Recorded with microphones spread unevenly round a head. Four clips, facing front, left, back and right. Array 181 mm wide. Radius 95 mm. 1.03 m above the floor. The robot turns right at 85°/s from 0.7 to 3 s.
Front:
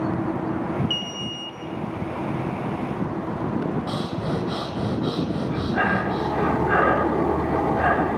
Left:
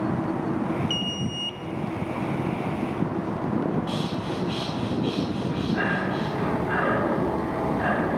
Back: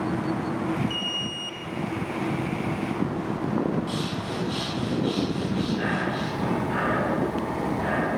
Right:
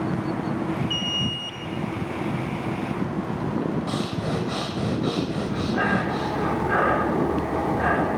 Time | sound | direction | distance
0.9 | an alarm | 60° left | 0.7 m
3.9 | breathing | 55° right | 3 m
5.5 | breathing | 20° right | 3 m